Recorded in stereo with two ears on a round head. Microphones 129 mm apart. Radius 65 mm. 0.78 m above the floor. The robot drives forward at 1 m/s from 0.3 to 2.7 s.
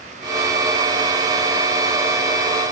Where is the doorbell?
No doorbell in this recording.